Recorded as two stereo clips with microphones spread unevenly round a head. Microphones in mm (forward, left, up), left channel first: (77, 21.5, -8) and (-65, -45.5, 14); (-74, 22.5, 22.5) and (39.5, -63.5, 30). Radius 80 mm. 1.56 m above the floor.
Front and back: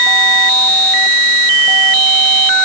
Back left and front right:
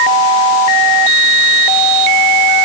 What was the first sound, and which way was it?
Only background noise.